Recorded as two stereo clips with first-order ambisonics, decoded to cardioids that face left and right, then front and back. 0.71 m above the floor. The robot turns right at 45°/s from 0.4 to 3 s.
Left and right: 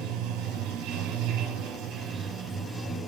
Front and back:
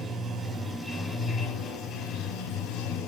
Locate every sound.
0.0 s running water: 100° right, 1.6 m; by 3.1 s 15° left, 1.6 m